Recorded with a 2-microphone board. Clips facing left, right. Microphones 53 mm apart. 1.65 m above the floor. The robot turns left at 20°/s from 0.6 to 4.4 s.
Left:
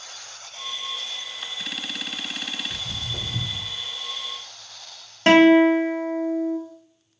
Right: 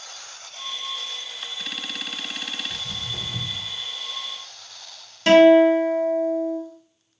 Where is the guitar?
30° left (ahead or behind), 0.5 m.